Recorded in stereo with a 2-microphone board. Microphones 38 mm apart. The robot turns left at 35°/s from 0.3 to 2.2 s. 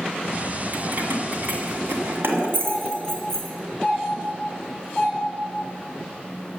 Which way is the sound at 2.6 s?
15° right (ahead or behind).